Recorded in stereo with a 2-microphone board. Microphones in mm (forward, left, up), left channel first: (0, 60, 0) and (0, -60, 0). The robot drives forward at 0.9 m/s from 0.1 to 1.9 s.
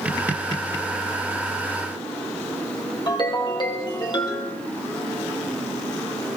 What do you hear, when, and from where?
3.1 s a ringtone: 35° left (ahead or behind), 3 m